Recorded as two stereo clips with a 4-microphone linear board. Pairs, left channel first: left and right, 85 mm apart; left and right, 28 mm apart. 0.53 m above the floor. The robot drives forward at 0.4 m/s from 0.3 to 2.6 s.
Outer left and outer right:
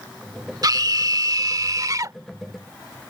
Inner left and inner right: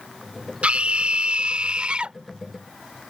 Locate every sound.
0.6 s a scream: 55° right (ahead or behind); by 2.2 s 45° right (ahead or behind)